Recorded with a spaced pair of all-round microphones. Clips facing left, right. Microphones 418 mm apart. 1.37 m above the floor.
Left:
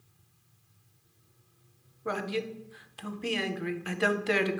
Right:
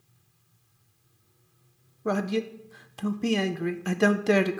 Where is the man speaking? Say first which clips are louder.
Right 6 dB; 60° right (ahead or behind), 0.5 m.